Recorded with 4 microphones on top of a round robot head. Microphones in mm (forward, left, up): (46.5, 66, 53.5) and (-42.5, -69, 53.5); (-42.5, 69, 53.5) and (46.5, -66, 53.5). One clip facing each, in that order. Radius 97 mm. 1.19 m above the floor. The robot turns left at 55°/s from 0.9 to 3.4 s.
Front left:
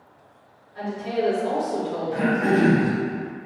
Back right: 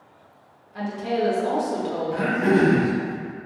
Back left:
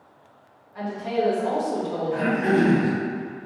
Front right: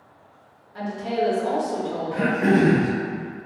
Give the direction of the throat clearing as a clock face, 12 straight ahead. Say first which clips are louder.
Even, front right 2 dB; 12 o'clock.